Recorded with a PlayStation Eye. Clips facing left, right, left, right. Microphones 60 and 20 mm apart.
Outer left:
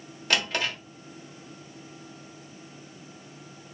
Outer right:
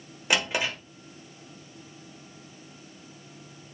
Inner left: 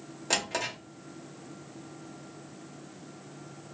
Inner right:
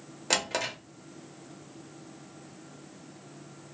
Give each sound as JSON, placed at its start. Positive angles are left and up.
{"t": 0.3, "sound": "a drawer", "side_deg": -20, "distance_m": 0.8}